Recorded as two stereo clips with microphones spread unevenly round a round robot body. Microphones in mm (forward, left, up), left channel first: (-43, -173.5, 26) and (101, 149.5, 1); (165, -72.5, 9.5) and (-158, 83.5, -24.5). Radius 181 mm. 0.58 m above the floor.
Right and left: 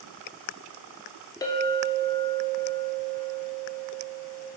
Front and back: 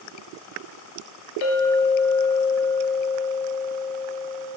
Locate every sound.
1.4 s a clink: 35° right, 0.7 m